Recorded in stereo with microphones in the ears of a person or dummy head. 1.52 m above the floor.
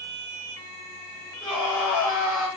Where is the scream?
Centre (ahead or behind), 3.5 m.